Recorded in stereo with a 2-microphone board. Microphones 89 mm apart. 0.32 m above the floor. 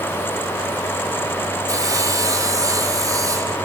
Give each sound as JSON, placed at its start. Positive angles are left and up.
{"t": 1.7, "sound": "sawing", "side_deg": -35, "distance_m": 1.1}